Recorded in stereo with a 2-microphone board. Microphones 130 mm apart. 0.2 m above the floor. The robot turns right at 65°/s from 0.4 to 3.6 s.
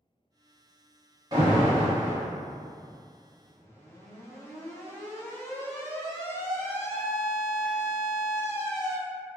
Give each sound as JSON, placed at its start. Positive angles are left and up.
{"t": 1.3, "sound": "an alarm", "side_deg": -30, "distance_m": 0.9}